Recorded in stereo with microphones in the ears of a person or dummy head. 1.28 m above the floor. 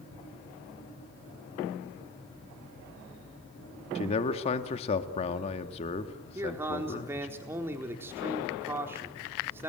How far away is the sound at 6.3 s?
About 4 m.